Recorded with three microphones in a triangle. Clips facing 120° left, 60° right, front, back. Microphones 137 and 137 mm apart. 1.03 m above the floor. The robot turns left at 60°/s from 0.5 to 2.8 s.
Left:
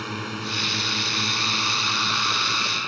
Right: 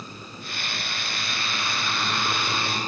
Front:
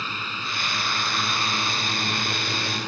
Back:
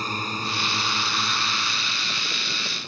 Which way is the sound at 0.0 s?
130° left.